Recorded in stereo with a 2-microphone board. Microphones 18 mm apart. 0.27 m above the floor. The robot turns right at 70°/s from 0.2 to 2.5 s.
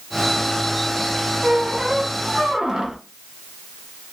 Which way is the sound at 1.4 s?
115° right.